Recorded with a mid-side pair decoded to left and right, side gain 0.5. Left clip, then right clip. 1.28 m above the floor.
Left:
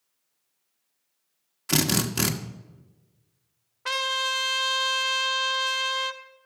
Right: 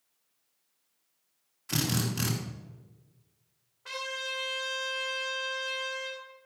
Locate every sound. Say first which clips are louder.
1.7 s a drill: left 7 dB; 55° left, 1.4 m
3.9 s a trumpet: left 9 dB; 70° left, 1.0 m